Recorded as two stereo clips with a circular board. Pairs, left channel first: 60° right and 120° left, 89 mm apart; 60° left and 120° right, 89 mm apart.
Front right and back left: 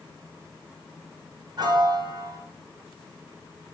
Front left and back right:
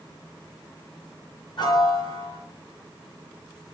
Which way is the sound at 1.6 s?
85° left.